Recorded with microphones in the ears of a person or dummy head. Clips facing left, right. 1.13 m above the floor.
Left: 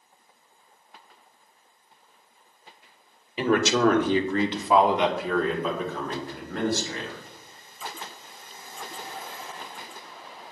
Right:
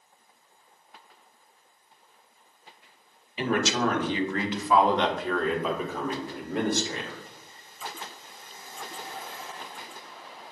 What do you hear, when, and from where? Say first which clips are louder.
3.4 s a man speaking: left 5 dB; 60° left (ahead or behind), 1.2 m; by 7.2 s 20° right (ahead or behind), 2 m